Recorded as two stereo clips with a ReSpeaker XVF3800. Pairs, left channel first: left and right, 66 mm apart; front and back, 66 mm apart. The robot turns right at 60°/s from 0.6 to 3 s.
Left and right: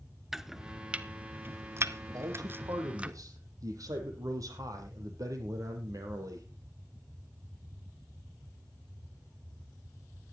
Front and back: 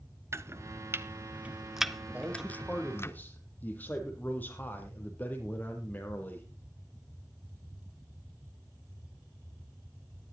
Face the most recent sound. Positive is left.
turn(degrees=-60)